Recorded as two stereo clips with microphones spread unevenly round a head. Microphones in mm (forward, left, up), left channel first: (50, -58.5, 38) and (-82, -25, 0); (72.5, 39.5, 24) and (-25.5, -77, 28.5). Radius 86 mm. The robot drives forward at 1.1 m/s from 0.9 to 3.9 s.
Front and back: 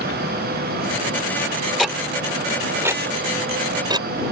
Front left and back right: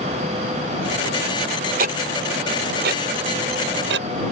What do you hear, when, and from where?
1.8 s ticking: 100° right; by 4.1 s 130° right